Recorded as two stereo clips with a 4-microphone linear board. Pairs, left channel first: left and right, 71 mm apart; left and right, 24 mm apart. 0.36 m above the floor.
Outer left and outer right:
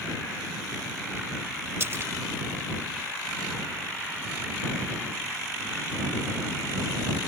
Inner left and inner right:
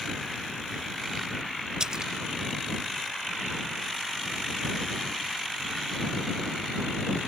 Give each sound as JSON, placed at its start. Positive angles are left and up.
{"t": 1.8, "sound": "a splash", "side_deg": -35}